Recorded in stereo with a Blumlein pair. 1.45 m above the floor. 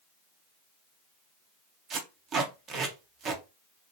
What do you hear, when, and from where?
1.9 s tape being pulled: 25° right, 1.0 m